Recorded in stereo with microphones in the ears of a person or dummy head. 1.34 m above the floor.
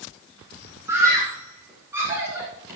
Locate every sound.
0.9 s a scream: 5° right (ahead or behind), 5.5 m